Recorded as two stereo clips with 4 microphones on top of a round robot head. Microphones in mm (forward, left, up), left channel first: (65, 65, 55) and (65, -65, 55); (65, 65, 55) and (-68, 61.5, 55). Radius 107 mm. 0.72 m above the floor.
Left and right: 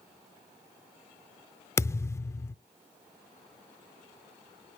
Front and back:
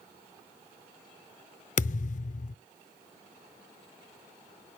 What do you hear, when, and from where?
1.8 s a thud: 20° left, 0.5 m